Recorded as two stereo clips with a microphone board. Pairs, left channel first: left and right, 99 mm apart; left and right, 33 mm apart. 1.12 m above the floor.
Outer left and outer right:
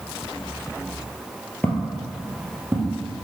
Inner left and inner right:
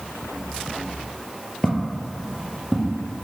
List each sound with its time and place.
1.6 s footsteps: 15° left (ahead or behind), 1.3 m; by 3.2 s 25° right (ahead or behind), 2.5 m